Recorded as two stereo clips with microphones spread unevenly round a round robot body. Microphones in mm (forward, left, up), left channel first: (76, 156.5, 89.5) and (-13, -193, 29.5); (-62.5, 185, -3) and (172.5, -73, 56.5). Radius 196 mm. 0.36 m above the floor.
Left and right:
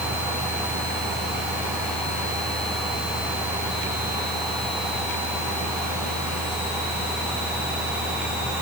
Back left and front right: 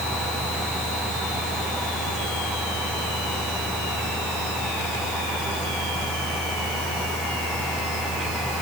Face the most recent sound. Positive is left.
No sound to turn to.